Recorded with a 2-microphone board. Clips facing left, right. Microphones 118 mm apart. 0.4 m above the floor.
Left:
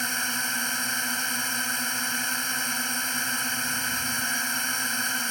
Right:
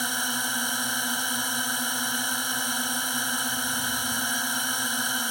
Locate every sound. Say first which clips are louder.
0.0 s a drone: right 1 dB; 15° right (ahead or behind)